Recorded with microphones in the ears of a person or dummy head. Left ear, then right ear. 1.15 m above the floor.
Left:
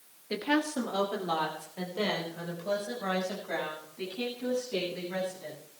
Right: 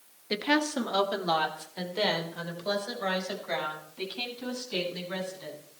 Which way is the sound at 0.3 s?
30° right (ahead or behind).